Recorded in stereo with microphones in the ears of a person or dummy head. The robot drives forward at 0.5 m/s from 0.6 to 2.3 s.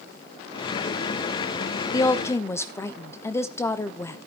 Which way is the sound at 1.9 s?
20° left (ahead or behind).